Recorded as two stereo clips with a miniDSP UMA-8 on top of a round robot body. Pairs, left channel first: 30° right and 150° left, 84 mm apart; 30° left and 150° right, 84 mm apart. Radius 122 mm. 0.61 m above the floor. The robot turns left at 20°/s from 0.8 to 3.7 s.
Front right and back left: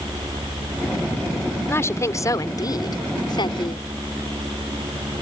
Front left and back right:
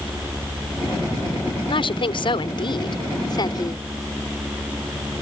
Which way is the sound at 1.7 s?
30° left.